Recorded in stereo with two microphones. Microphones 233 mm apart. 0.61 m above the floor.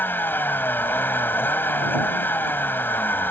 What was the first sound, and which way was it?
A vehicle, 10° left (ahead or behind).